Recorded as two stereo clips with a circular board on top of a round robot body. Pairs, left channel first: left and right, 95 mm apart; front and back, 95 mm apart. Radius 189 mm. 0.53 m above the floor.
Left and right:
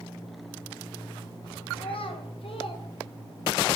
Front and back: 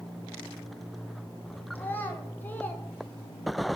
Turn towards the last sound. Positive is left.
turn(degrees=70)